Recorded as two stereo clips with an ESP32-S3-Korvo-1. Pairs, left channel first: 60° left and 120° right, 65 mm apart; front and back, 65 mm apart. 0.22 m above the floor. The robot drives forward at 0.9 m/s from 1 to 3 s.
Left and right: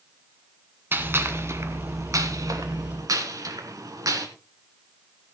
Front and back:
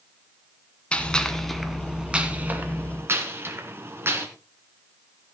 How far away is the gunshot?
About 1.8 m.